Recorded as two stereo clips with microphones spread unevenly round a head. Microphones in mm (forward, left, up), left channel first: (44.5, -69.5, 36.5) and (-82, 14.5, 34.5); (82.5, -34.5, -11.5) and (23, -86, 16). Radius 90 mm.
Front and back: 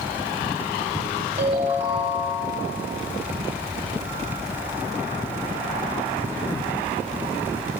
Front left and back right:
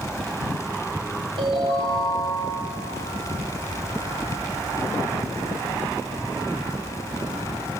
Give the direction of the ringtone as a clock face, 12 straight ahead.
6 o'clock.